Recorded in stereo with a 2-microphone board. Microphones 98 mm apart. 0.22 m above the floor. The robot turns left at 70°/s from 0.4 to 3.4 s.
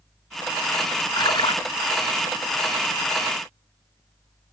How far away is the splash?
About 0.8 m.